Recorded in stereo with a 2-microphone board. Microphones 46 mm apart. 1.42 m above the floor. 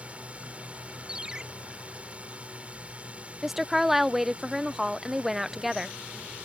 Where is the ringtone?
15° right (ahead or behind).